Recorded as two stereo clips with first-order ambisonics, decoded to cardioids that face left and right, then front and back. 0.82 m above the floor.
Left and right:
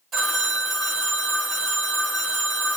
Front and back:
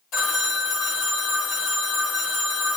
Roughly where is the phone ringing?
Ahead right.